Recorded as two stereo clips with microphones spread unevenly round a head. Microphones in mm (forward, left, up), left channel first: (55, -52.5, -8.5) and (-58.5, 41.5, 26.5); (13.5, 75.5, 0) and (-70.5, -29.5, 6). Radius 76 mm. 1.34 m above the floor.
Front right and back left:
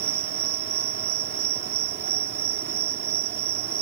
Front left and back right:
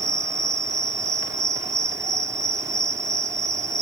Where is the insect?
165° left.